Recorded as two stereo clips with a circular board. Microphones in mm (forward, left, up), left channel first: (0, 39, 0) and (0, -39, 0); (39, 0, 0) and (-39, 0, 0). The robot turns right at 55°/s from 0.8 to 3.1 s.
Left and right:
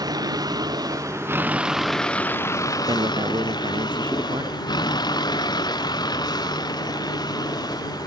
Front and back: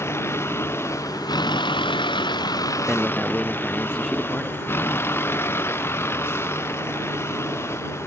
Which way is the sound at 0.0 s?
55° right.